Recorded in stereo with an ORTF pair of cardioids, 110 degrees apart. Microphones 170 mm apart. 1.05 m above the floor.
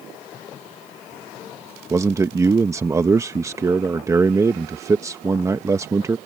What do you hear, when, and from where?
1.9 s a man speaking: 20° right